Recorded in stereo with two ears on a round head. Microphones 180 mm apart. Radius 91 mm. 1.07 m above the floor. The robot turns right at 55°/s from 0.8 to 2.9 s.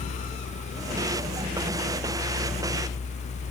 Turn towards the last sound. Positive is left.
No sound to turn to.